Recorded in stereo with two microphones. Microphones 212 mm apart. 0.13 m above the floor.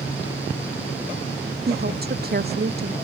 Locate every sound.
1.7 s a woman speaking: 45° right (ahead or behind)